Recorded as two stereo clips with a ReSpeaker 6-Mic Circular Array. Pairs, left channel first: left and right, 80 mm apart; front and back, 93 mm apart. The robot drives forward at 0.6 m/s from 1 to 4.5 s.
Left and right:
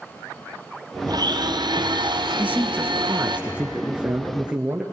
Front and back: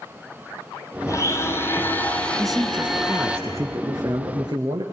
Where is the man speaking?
85° right, 1.1 m; by 4.8 s 165° right, 1.6 m.